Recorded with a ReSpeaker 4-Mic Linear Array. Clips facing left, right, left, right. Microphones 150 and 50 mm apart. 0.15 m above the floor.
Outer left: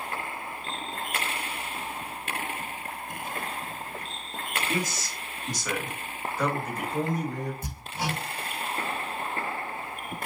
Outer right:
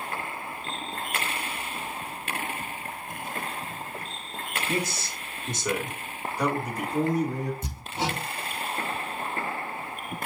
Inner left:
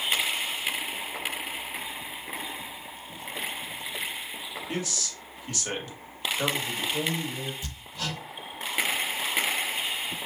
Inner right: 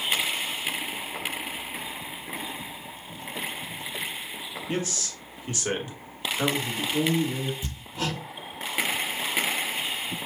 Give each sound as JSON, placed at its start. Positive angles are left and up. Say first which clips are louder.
{"t": 4.7, "sound": "a man speaking", "louder": "outer right 3 dB, inner right 4 dB", "side_deg": -35, "distance_m": 1.5}
{"t": 7.6, "sound": "hammering", "louder": "outer right 2 dB, inner right 4 dB", "side_deg": -20, "distance_m": 1.7}